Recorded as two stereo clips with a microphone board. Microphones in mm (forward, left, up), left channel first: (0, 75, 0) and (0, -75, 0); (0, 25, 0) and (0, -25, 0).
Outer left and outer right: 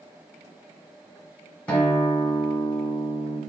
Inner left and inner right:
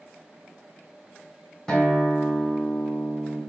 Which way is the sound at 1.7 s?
10° left (ahead or behind).